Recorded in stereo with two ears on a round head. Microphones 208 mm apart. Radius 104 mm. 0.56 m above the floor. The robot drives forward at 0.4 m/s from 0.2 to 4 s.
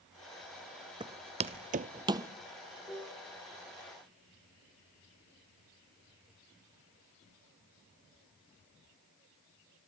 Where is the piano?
10° left (ahead or behind), 8 m.